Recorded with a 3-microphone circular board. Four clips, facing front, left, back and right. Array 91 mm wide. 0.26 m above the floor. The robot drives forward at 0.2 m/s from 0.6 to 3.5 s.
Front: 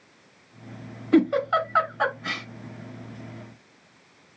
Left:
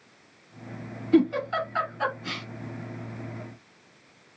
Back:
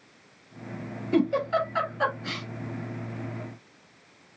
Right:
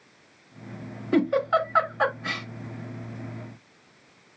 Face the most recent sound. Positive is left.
turn(degrees=-55)